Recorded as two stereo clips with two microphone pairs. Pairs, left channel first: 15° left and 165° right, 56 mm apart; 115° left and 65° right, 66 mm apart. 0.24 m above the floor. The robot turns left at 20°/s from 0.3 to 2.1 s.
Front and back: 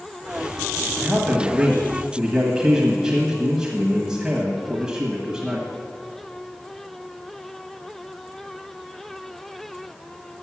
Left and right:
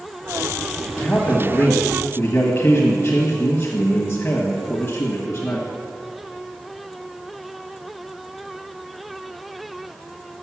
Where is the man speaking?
145° left, 1.2 m; by 5.7 s 120° left, 1.2 m.